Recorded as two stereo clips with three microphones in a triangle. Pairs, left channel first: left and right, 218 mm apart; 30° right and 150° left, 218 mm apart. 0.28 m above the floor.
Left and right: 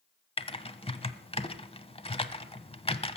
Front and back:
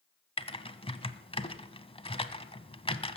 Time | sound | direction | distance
0.4 | typing on a keyboard | 30° left | 0.9 m